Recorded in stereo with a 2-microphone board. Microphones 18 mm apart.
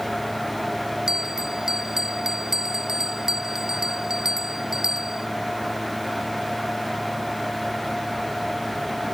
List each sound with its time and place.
1.1 s a bell: 35° right (ahead or behind)